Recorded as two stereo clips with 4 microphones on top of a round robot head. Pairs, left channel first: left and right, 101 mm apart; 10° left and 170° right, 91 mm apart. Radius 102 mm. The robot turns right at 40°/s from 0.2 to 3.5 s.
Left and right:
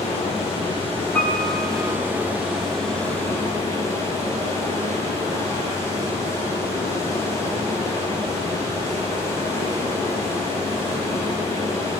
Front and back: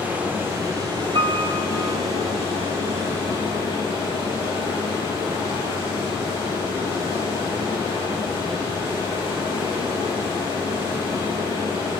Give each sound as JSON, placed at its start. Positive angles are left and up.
{"t": 0.0, "sound": "running water", "azimuth_deg": 120, "distance_m": 9.5}
{"t": 1.1, "sound": "a piano", "azimuth_deg": 175, "distance_m": 4.0}